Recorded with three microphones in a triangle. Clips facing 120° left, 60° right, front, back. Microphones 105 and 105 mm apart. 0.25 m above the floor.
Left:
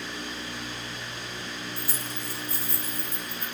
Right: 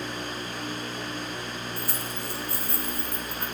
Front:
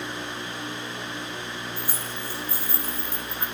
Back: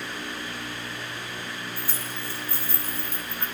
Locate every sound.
1.8 s keys jangling: 75° right, 1.5 m